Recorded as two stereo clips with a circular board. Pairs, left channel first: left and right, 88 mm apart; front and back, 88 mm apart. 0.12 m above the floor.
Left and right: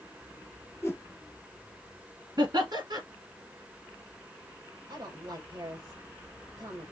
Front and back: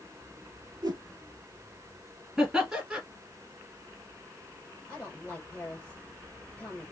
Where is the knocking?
I don't hear knocking.